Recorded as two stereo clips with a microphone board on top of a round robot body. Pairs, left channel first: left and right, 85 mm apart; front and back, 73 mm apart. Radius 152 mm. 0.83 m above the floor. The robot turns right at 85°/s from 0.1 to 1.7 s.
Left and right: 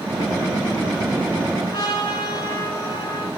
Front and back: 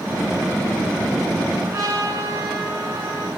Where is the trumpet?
130° left, 5.5 m; by 3.3 s 135° left, 5.5 m.